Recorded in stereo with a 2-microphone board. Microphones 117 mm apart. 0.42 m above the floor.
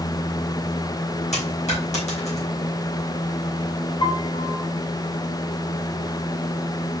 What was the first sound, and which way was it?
A dropped coin, 75° left (ahead or behind).